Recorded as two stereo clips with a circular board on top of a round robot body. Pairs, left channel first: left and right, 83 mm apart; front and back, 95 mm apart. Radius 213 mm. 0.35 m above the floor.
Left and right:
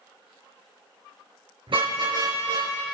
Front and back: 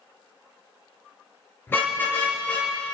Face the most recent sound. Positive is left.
turn(degrees=-75)